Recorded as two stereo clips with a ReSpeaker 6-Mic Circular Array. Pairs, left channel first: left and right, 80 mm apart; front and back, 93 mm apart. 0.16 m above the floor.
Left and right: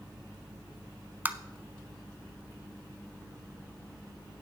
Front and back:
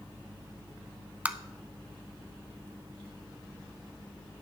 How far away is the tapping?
About 0.6 m.